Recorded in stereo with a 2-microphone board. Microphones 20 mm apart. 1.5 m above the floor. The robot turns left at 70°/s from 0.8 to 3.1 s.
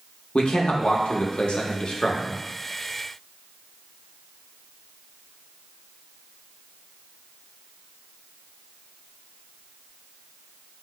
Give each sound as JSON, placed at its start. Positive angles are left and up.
{"t": 0.3, "sound": "a man speaking", "azimuth_deg": 120, "distance_m": 0.6}